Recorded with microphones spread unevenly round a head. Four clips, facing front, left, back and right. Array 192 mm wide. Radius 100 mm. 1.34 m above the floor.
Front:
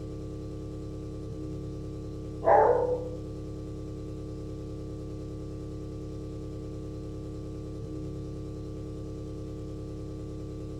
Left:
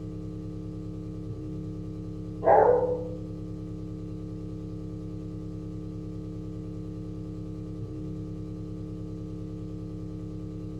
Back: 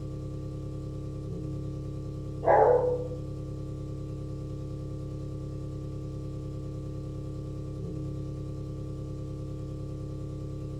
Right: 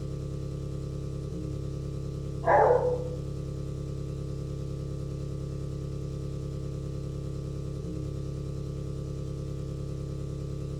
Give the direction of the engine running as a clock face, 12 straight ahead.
1 o'clock.